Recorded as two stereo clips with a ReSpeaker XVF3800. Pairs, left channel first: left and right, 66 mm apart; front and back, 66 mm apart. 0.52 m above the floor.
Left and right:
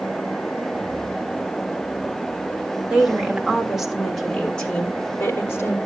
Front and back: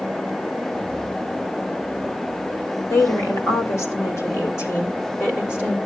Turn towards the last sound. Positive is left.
turn(degrees=45)